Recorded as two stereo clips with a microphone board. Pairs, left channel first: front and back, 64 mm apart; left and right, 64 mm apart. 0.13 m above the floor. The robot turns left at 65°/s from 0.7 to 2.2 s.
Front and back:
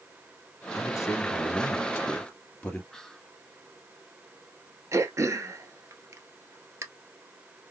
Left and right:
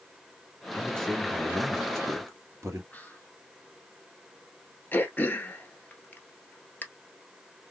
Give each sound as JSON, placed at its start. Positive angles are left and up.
{"t": 0.8, "sound": "a man speaking", "azimuth_deg": 30, "distance_m": 2.5}
{"t": 2.9, "sound": "whispering", "azimuth_deg": 75, "distance_m": 1.1}
{"t": 4.9, "sound": "throat clearing", "azimuth_deg": 150, "distance_m": 1.1}